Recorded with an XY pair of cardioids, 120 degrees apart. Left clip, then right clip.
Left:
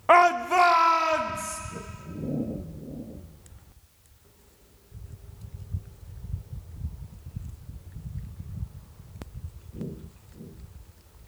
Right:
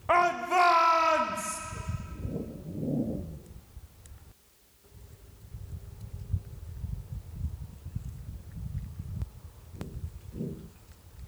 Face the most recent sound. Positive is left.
turn(degrees=0)